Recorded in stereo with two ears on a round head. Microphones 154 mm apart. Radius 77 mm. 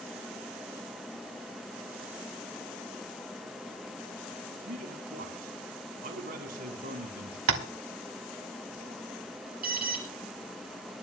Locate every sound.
4.7 s a man speaking: 60° right (ahead or behind), 3 m
7.5 s tapping: 85° right, 2 m
9.6 s an alarm: 60° right (ahead or behind), 5 m